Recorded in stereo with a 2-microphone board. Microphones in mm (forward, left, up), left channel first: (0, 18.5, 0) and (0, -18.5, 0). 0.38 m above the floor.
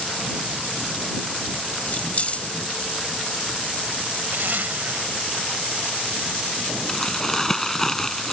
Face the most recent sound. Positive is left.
turn(degrees=15)  # may be behind; listen again after turning